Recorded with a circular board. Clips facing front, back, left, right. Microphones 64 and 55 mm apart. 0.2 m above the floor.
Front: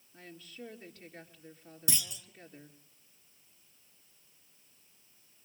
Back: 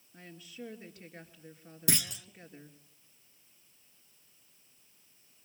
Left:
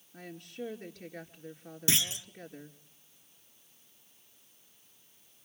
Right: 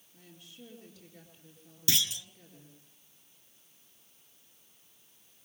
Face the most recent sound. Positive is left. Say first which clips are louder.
# back 6 dB, left 1 dB
turn(degrees=155)